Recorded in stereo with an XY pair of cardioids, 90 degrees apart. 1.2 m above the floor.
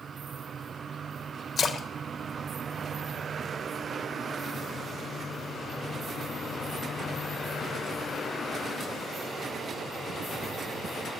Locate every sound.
1.6 s a splash: 55° left, 0.7 m